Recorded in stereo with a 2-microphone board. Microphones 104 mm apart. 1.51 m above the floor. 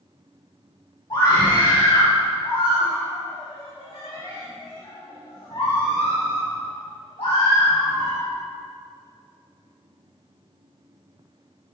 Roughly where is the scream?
Left.